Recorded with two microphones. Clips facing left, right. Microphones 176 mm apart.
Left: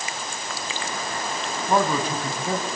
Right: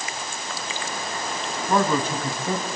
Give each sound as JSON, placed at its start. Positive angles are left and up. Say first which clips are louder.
{"t": 1.7, "sound": "a man speaking", "louder": "even", "side_deg": 10, "distance_m": 4.0}